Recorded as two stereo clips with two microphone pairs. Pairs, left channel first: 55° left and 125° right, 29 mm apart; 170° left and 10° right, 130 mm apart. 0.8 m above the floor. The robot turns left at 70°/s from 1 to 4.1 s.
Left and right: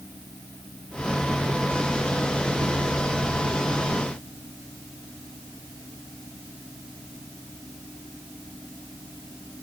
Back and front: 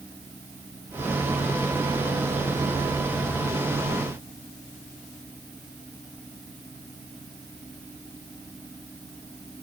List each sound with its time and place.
Only background noise.